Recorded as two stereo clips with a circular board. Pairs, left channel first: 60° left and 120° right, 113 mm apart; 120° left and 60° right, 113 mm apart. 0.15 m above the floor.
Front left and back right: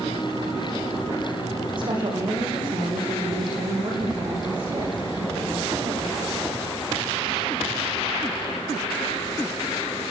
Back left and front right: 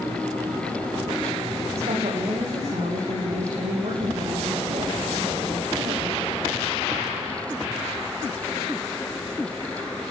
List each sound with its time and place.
1.8 s a woman speaking: 80° right, 7.5 m; by 6.5 s 75° right, 10.5 m